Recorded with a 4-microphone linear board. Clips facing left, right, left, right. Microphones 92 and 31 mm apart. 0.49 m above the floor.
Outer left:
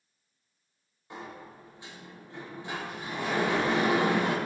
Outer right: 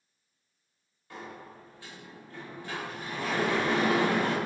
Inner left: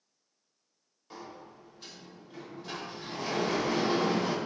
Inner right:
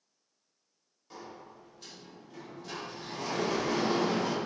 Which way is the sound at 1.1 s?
20° left (ahead or behind).